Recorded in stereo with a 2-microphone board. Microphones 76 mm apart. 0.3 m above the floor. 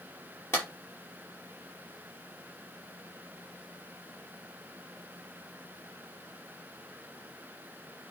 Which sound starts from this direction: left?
A clap, at 0.5 s.